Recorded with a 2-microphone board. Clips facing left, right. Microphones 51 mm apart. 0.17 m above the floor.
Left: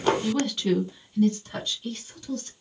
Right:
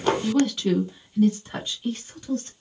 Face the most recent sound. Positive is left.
turn(degrees=-30)  # may be behind; listen again after turning